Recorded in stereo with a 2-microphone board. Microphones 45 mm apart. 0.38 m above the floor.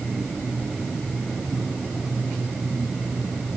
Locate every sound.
Only background noise.